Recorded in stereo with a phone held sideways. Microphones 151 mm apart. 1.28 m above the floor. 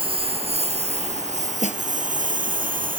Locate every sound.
0.0 s a lawn mower: 35° right (ahead or behind); by 3.0 s 65° right (ahead or behind)
1.6 s a snare drum: 50° left (ahead or behind)